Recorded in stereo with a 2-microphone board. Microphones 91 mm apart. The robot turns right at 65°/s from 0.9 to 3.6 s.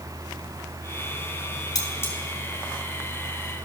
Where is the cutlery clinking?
45° left (ahead or behind), 1.7 m; by 2.1 s 25° left (ahead or behind), 1.7 m.